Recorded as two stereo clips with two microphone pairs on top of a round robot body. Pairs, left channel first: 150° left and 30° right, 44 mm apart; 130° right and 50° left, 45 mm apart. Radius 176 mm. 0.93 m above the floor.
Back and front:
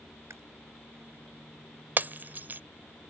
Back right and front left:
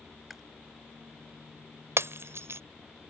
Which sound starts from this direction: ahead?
Breaking glass, at 2.0 s.